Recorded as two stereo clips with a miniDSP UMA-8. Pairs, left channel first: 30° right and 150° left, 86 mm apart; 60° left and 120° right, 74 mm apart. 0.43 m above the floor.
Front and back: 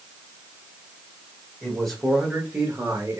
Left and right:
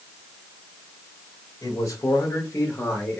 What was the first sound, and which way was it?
A man speaking, 50° left.